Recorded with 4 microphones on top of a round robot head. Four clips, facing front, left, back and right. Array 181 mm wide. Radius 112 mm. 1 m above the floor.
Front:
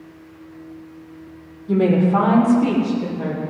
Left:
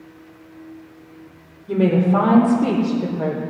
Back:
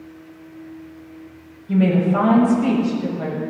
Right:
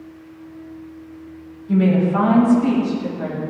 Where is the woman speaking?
40° left, 3.5 m; by 3.4 s 75° left, 4 m.